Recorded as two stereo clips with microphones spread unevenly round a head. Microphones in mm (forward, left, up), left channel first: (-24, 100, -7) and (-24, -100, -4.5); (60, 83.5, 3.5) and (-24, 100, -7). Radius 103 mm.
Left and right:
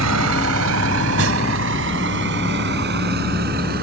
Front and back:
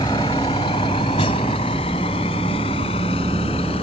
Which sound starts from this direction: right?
A vehicle, at 0.0 s.